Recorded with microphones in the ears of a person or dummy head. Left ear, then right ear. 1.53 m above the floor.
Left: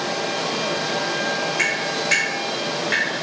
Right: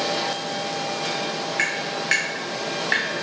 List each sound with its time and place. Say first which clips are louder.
1.6 s tapping: left 3 dB; 25° right (ahead or behind), 1.0 m